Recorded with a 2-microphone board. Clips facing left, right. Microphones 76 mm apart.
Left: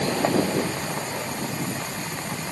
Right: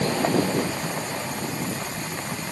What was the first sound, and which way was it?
Only background noise.